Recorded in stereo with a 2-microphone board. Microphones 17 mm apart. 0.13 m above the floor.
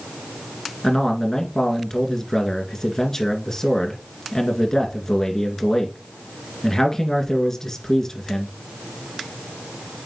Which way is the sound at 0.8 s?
30° left (ahead or behind).